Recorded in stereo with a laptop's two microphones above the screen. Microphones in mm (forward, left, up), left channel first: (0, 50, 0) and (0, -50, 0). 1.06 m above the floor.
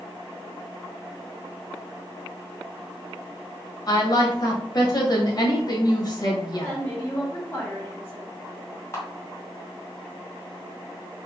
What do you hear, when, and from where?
3.9 s a woman speaking: 45° left (ahead or behind), 1.4 m
6.6 s a woman speaking: 20° left (ahead or behind), 1.3 m
8.9 s a camera shutter: 25° left (ahead or behind), 1.9 m